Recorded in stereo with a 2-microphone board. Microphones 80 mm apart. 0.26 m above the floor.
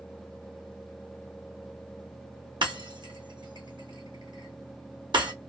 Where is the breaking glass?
80° right, 1.7 m.